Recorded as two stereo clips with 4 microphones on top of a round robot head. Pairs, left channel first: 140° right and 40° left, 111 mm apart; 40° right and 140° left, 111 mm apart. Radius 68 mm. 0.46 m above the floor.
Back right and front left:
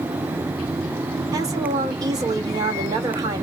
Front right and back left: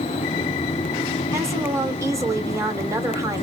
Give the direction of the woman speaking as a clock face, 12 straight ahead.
9 o'clock.